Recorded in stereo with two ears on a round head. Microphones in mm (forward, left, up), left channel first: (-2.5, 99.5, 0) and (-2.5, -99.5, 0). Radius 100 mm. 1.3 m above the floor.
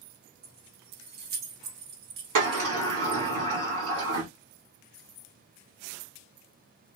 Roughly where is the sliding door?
Right.